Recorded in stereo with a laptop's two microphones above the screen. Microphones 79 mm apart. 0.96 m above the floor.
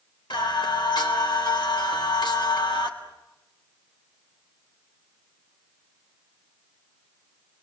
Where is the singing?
85° left, 3.5 m.